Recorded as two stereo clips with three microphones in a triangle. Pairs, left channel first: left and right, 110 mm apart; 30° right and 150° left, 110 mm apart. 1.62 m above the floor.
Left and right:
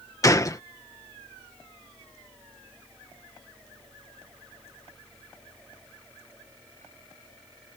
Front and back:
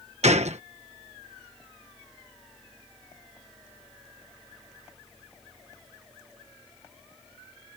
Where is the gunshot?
150° left.